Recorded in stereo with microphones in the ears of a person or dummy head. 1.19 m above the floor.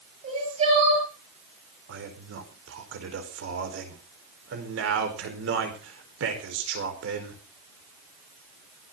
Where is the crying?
35° right (ahead or behind), 9.5 m.